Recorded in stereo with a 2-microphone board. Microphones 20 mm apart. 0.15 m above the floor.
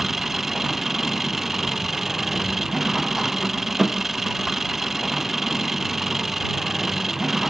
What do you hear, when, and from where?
0.0 s an engine running: 15° right (ahead or behind)